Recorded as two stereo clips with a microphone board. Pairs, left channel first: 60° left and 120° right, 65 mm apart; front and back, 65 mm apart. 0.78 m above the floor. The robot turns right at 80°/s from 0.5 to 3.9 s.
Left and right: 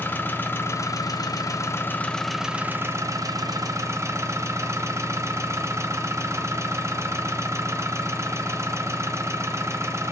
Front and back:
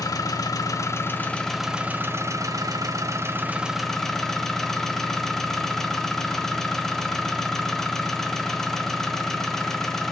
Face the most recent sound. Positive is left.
turn(degrees=-85)